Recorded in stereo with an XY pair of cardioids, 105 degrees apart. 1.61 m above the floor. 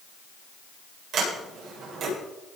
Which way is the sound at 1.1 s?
65° right.